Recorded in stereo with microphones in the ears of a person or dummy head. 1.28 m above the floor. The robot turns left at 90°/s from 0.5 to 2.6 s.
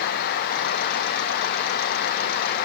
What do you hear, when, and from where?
Only background noise.